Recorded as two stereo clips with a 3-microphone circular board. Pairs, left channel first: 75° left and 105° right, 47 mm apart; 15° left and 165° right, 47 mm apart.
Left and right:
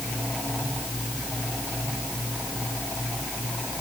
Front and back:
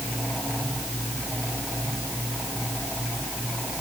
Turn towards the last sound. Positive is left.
No sound to turn to.